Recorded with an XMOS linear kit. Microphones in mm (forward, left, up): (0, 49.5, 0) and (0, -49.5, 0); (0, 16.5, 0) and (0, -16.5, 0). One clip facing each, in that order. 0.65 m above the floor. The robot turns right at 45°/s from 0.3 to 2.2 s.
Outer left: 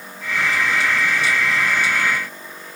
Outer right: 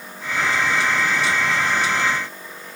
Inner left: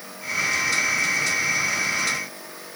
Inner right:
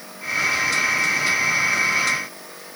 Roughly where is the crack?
No crack in this recording.